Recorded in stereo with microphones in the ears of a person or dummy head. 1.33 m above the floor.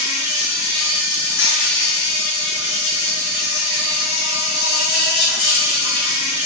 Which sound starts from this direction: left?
An insect, at 0.0 s.